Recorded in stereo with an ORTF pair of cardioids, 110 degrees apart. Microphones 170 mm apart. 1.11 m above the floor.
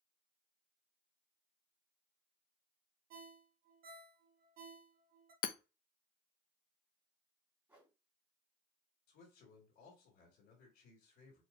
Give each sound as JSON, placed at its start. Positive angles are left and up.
{"t": 3.1, "sound": "a ringtone", "azimuth_deg": -60, "distance_m": 1.2}
{"t": 5.4, "sound": "hammering", "azimuth_deg": 60, "distance_m": 0.7}
{"t": 7.7, "sound": "a whoosh", "azimuth_deg": -10, "distance_m": 3.0}
{"t": 9.1, "sound": "a man speaking", "azimuth_deg": 65, "distance_m": 2.5}